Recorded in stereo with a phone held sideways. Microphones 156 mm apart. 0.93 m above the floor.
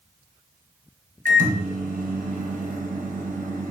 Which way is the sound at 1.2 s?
60° right (ahead or behind).